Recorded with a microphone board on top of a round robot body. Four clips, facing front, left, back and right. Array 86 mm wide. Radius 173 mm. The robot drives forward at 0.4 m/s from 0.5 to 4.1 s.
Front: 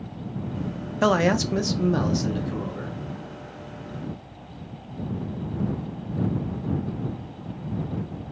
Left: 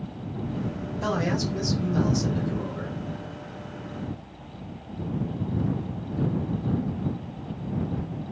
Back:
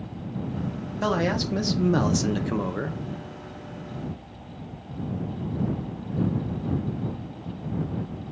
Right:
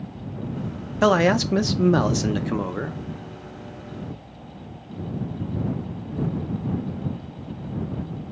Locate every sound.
1.0 s a man speaking: 60° right, 0.7 m; by 3.0 s 130° right, 0.8 m